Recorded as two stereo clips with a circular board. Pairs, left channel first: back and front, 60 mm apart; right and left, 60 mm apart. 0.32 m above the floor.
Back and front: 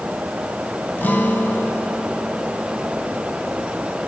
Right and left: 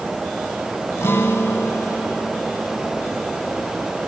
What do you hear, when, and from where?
1.0 s a guitar: 125° right, 2 m